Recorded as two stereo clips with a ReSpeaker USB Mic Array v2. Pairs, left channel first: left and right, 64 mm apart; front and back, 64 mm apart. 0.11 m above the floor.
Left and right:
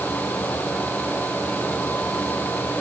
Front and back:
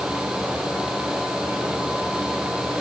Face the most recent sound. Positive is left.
No sound to turn to.